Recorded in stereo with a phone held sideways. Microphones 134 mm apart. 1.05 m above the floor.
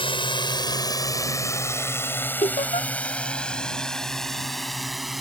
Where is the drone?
40° left (ahead or behind); by 5.2 s centre (ahead or behind).